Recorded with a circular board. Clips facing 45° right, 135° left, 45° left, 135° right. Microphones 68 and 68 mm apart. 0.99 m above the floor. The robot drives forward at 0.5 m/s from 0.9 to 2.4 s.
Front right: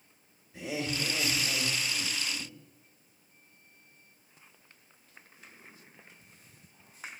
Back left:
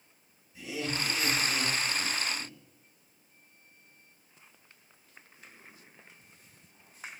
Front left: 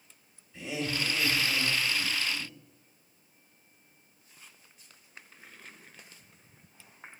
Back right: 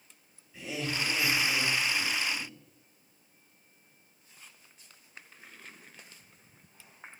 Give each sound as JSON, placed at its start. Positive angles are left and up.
{"t": 0.5, "sound": "laughter", "azimuth_deg": -50, "distance_m": 3.0}